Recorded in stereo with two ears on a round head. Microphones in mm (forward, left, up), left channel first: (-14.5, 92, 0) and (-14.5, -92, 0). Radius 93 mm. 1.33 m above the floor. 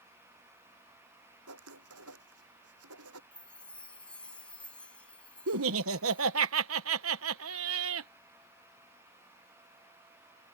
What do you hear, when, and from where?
1.5 s writing: 80° right
3.3 s a chime: 5° left (ahead or behind)
5.5 s laughter: 75° right (ahead or behind)